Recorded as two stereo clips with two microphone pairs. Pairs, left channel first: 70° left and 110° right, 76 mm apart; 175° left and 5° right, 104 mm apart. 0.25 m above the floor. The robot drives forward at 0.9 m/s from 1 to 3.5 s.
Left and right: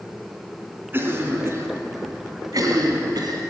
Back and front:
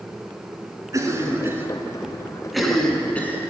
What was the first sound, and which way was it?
A cough, 55° right.